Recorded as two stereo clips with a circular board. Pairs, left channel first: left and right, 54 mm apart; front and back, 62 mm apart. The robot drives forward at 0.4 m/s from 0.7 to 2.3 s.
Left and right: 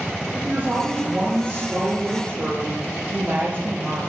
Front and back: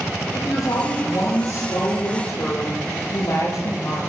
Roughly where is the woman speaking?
Ahead right.